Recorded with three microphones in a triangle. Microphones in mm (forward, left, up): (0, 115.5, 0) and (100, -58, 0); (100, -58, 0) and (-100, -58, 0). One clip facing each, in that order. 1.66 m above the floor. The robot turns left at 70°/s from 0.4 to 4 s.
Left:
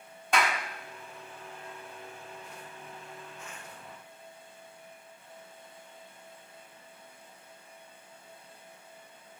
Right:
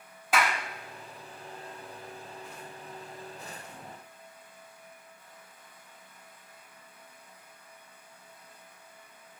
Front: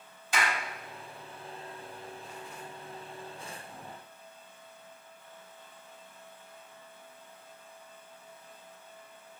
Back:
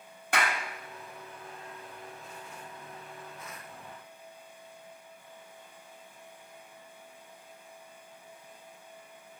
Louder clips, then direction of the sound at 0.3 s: Even, back 1 dB; 145° right.